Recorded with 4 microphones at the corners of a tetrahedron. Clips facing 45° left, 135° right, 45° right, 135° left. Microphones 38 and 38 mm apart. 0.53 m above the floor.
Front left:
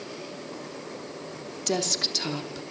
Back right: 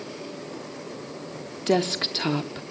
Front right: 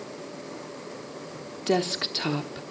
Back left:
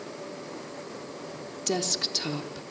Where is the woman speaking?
90° right, 1.0 m.